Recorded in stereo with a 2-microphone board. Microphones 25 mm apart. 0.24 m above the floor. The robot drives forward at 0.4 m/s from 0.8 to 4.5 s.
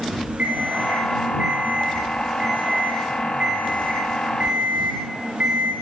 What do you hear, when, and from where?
0.4 s an alarm clock: 60° right (ahead or behind), 9.5 m; by 5.7 s 55° right (ahead or behind), 10 m